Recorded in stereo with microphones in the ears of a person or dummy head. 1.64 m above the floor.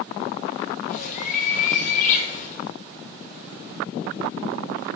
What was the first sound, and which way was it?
A bird, 50° left (ahead or behind).